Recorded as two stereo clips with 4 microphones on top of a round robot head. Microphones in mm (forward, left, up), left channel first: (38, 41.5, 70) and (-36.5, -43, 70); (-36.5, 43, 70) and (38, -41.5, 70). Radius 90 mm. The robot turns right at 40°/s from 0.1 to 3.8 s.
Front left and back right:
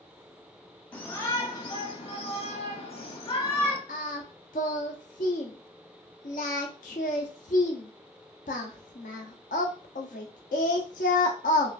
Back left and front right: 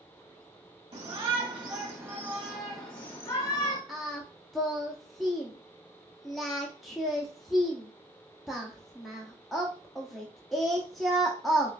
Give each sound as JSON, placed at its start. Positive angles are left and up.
{"t": 0.9, "sound": "a shout", "azimuth_deg": -25, "distance_m": 1.4}
{"t": 3.9, "sound": "singing", "azimuth_deg": 40, "distance_m": 0.5}